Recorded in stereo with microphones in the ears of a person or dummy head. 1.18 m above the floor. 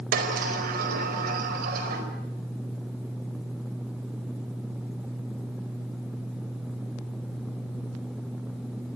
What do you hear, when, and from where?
0.1 s a sliding door: 55° right (ahead or behind), 4.5 m